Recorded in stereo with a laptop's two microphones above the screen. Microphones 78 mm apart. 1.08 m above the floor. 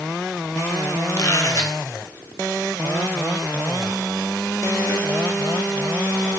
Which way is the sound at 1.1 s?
50° left (ahead or behind).